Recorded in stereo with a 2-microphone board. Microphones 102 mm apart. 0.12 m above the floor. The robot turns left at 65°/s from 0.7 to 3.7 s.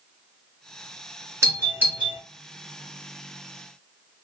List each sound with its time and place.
1.4 s a doorbell: 25° right (ahead or behind), 1.7 m; by 2.2 s 10° right (ahead or behind), 1.7 m